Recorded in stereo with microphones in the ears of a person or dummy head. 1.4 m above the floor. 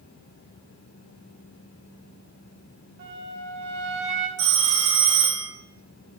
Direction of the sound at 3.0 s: 55° right (ahead or behind).